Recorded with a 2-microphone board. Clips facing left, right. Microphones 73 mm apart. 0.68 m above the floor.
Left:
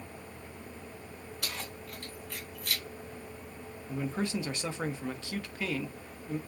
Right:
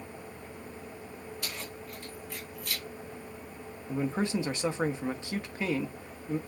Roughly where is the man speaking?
Right.